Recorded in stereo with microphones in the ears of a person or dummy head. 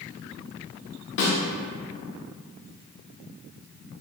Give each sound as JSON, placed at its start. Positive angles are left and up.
{"t": 1.2, "sound": "a snare drum", "side_deg": 60, "distance_m": 0.8}